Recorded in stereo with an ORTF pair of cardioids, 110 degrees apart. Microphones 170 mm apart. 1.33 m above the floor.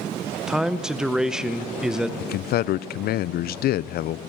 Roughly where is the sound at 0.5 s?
Ahead.